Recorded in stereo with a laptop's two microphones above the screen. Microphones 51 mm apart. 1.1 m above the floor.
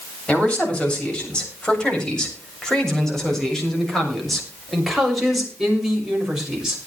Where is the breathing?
No breathing in this recording.